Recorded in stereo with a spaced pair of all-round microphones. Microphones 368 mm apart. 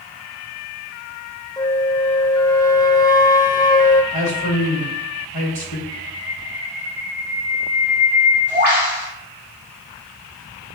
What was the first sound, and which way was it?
A flute, 10° left (ahead or behind).